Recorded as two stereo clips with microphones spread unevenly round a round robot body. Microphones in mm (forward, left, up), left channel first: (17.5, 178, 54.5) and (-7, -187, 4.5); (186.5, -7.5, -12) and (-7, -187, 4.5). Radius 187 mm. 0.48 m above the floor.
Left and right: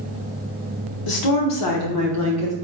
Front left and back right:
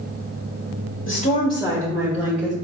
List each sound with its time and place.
1.1 s a woman speaking: 95° left, 1.0 m; by 2.5 s 140° left, 1.4 m